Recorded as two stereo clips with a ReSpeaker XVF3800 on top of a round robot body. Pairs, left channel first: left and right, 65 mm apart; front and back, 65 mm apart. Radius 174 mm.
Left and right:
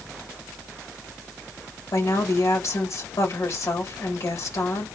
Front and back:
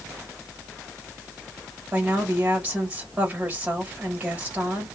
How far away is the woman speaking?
About 1.8 m.